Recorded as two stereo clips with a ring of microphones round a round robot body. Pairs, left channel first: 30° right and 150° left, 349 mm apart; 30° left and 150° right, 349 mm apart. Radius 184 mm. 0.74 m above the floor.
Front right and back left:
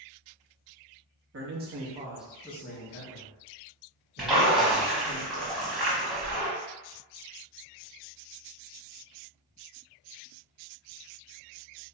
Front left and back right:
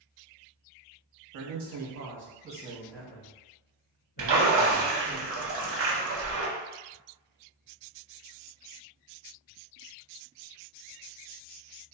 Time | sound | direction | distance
1.3 | a man speaking | 160° right | 1.1 m
4.2 | a splash | 120° right | 0.7 m